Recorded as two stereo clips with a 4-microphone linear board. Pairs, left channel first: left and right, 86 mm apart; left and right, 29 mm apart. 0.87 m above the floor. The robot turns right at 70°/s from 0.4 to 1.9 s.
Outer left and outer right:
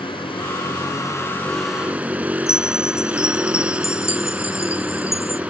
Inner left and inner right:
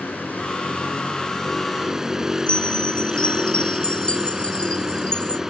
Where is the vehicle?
90° left; by 5.5 s 165° right.